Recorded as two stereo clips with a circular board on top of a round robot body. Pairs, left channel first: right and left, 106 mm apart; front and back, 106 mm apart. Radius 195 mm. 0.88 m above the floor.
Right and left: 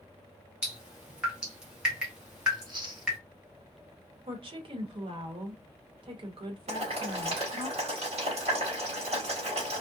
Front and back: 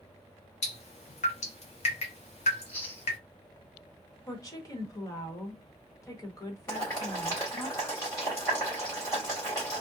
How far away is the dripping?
About 0.7 m.